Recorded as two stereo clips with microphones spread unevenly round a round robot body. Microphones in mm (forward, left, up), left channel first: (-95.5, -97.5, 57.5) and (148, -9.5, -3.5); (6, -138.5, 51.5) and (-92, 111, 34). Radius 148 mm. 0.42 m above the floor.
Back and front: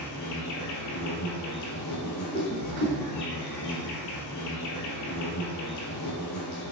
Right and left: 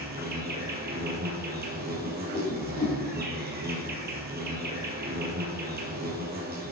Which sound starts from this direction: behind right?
A whoosh, at 2.0 s.